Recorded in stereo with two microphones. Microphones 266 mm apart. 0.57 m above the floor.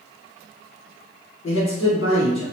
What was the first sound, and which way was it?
A man speaking, 55° left (ahead or behind).